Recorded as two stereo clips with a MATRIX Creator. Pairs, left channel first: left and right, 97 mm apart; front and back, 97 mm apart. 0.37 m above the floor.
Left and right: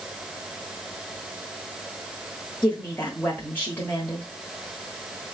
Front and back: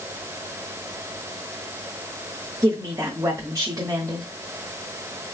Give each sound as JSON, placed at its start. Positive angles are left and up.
{"t": 2.6, "sound": "a woman speaking", "azimuth_deg": 150, "distance_m": 1.2}